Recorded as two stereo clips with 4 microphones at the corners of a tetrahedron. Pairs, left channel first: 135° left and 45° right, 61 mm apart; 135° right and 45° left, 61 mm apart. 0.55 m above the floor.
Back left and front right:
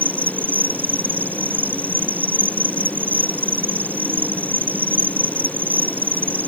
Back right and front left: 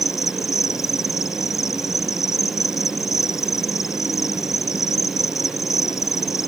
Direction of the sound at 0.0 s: 105° right.